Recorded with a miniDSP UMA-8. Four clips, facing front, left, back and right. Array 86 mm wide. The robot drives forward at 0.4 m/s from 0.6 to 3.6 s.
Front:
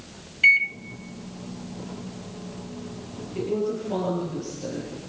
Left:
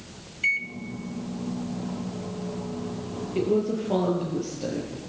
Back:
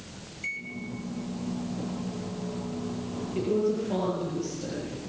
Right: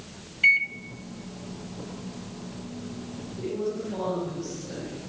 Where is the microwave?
20° right, 1.2 m.